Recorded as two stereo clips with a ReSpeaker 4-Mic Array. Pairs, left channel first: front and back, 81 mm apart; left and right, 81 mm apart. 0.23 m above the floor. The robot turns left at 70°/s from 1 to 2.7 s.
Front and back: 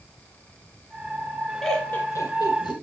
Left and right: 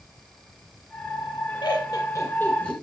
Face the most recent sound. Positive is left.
turn(degrees=10)